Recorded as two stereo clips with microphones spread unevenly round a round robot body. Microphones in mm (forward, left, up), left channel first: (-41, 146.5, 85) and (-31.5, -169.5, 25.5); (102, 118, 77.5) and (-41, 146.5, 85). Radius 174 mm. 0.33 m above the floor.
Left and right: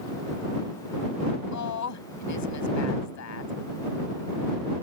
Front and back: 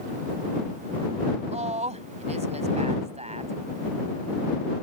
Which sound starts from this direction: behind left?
A woman speaking, at 1.5 s.